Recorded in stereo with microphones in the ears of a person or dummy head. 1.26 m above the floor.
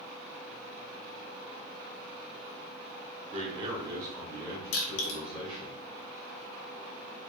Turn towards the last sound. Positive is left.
turn(degrees=75)  # may be behind; listen again after turning